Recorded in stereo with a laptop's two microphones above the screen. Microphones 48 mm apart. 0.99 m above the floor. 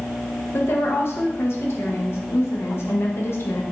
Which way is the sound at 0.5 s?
55° left (ahead or behind).